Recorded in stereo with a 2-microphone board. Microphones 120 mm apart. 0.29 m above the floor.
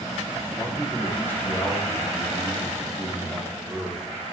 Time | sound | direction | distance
0.6 | a man speaking | 25° left (ahead or behind) | 8 m